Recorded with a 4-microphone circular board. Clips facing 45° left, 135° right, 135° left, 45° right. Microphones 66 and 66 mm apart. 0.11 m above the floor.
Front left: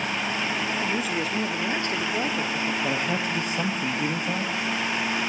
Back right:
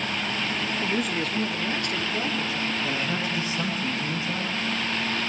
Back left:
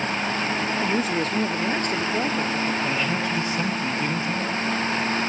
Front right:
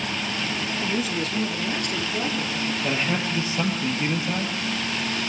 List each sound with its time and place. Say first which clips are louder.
0.8 s a man speaking: even, back left 2 dB; 145° left, 1.5 m; by 2.7 s 90° left, 2.5 m
2.8 s a man speaking: front left 2 dB, back left 1 dB; 20° left, 3 m